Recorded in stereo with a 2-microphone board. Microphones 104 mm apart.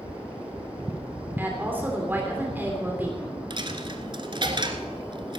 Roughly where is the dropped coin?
Right.